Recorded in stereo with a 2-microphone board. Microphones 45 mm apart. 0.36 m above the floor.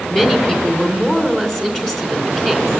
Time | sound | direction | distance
0.1 | a woman speaking | 20° left (ahead or behind) | 3 m